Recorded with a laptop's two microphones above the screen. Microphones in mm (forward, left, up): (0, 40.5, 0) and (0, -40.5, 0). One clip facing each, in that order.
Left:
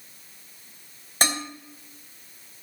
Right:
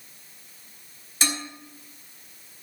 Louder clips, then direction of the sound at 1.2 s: Left 3 dB; 55° left (ahead or behind).